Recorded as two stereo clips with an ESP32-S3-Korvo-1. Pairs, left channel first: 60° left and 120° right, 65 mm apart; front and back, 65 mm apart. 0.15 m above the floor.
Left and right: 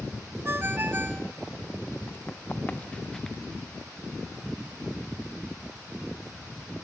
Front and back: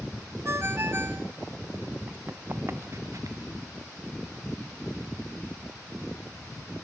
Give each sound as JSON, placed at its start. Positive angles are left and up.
{"t": 0.5, "sound": "a ringtone", "azimuth_deg": -155, "distance_m": 1.1}
{"t": 2.1, "sound": "running footsteps", "azimuth_deg": 120, "distance_m": 2.0}